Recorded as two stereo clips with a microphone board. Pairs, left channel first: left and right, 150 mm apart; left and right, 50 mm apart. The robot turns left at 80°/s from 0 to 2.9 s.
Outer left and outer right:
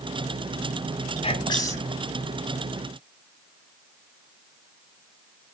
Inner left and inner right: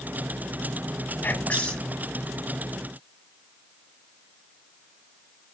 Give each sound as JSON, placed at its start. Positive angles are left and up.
{"t": 1.2, "sound": "whispering", "azimuth_deg": 70, "distance_m": 1.3}